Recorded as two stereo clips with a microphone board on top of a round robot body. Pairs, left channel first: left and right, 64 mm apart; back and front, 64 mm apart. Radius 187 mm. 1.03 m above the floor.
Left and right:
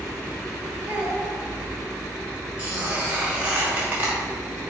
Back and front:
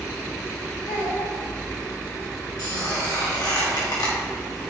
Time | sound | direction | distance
0.9 | a child speaking | 160° right | 2 m
2.6 | a squeak | 160° right | 2 m